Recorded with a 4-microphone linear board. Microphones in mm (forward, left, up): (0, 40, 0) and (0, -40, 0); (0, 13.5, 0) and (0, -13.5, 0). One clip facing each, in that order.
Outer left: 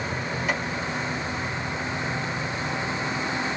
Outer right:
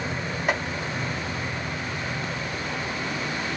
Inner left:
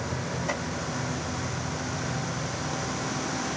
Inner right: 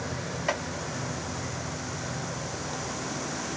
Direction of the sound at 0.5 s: 50° right (ahead or behind).